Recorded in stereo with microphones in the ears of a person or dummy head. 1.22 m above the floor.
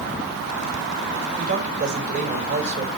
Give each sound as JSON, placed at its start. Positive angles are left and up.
{"t": 1.4, "sound": "a man speaking", "side_deg": -40, "distance_m": 5.0}